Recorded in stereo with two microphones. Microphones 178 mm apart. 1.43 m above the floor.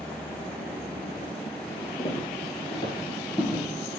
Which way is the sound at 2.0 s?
35° left (ahead or behind).